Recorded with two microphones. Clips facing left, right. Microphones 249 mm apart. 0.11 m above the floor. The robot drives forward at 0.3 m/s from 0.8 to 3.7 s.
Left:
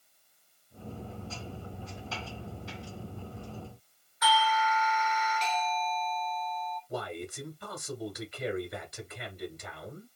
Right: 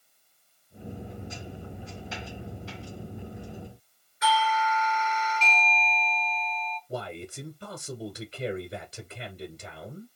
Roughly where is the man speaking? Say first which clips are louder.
Right 1 dB; right.